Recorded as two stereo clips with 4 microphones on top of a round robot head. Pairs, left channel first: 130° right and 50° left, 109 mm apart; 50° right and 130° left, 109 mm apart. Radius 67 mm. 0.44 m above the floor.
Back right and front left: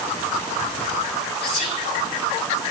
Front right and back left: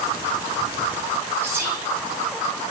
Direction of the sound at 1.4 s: 160° right.